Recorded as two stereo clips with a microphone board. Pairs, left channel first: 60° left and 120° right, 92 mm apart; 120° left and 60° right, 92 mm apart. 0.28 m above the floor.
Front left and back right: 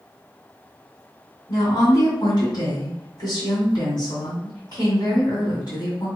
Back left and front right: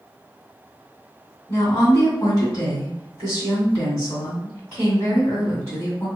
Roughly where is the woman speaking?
Left.